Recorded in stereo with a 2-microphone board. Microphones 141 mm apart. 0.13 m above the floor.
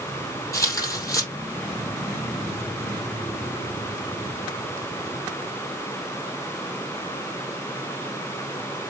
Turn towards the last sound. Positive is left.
turn(degrees=20)  # may be behind; listen again after turning